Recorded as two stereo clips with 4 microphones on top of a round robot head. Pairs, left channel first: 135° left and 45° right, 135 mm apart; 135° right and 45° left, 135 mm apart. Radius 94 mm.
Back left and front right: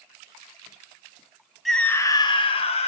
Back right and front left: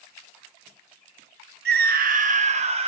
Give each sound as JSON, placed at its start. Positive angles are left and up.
{"t": 1.6, "sound": "a scream", "azimuth_deg": 45, "distance_m": 0.8}